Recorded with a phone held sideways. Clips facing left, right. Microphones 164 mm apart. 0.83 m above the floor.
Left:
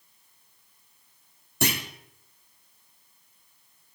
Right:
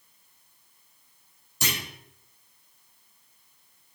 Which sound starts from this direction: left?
A clunk, at 1.6 s.